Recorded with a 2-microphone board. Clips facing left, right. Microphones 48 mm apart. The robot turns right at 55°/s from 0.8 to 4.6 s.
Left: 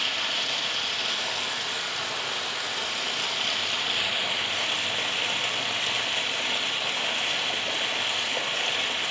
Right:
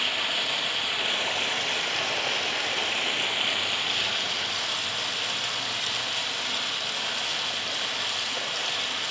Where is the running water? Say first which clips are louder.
Right 1 dB; 170° right, 0.9 m; by 9.1 s 40° left, 0.9 m.